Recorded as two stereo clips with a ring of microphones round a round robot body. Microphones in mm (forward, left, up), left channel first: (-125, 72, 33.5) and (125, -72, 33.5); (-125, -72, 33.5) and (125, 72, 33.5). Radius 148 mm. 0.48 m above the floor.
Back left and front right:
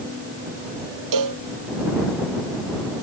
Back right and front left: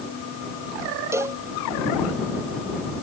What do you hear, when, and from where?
1.1 s a cowbell: 50° right